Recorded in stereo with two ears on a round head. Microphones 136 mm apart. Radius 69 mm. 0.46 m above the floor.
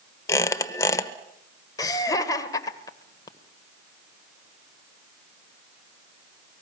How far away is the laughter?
About 1.7 m.